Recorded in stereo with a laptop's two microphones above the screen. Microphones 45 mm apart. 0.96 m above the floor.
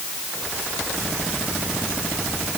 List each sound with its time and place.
Only background noise.